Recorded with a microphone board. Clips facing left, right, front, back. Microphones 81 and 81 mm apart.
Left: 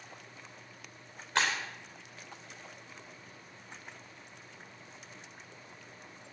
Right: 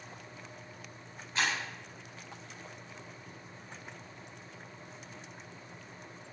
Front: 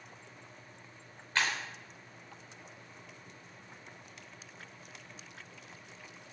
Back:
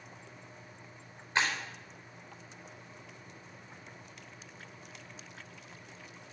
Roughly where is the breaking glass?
Left.